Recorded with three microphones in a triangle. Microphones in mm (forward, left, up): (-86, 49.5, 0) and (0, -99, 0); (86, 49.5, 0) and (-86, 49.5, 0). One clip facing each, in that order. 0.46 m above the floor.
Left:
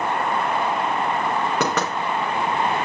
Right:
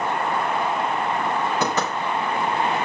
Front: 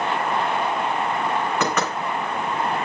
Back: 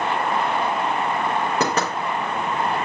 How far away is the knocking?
About 4.5 m.